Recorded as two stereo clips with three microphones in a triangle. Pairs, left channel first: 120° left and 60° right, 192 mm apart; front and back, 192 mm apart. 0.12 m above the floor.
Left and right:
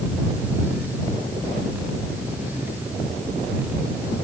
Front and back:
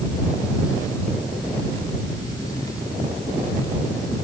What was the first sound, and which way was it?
Only background noise.